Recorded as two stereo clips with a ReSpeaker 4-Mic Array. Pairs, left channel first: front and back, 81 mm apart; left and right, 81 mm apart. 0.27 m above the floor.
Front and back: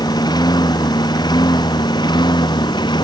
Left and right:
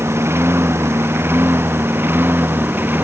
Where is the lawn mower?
30° right; by 3.0 s 25° right.